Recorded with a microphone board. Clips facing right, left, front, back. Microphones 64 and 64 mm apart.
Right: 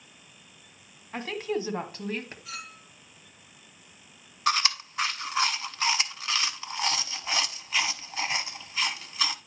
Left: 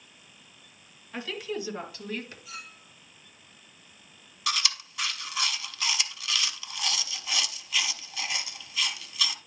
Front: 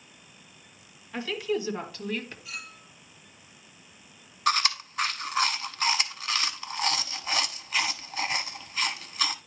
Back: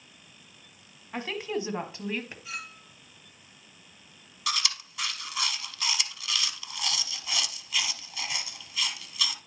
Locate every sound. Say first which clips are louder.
1.1 s a woman speaking: right 3 dB, front 2 dB; 130° right, 1.7 m; by 2.4 s 110° right, 1.3 m
2.5 s a clink: right 2 dB, back 2 dB; 120° right, 3 m
4.5 s chewing: right 5 dB, front 7 dB; 40° right, 0.6 m